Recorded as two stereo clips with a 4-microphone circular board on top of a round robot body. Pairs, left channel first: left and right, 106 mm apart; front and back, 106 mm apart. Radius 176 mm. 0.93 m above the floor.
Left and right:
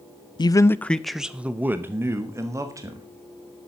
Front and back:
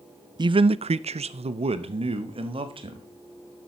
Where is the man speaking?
135° left, 0.5 m; by 3.1 s 150° right, 1.8 m.